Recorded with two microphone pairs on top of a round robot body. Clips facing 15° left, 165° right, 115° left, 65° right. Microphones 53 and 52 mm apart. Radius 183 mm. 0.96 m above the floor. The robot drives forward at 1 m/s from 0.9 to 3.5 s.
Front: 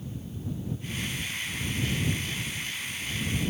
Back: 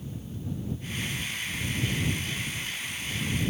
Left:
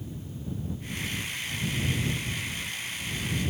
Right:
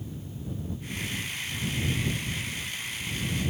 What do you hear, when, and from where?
Only background noise.